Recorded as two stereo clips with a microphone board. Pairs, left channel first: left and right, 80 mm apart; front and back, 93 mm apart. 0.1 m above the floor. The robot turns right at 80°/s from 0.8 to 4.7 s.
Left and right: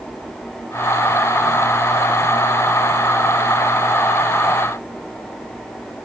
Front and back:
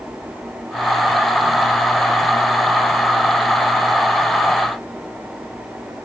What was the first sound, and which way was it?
Only background noise.